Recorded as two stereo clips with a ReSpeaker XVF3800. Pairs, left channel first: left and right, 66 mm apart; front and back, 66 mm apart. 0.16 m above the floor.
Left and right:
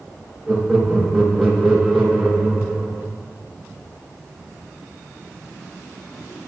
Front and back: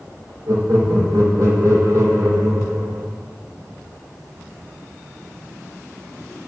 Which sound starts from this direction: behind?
Laughter, at 0.5 s.